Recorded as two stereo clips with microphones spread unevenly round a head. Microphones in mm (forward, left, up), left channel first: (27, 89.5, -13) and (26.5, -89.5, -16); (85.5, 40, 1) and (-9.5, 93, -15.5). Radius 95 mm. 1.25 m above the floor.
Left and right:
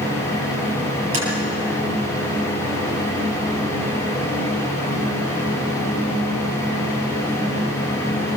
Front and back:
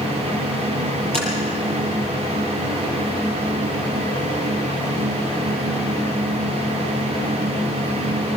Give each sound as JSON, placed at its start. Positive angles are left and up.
{"t": 1.1, "sound": "tapping", "azimuth_deg": -85, "distance_m": 8.0}